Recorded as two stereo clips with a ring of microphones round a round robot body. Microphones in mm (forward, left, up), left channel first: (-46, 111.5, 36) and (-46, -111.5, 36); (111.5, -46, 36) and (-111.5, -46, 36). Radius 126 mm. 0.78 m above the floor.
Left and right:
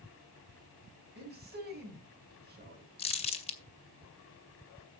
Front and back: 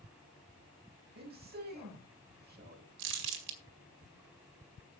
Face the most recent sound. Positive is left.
turn(degrees=155)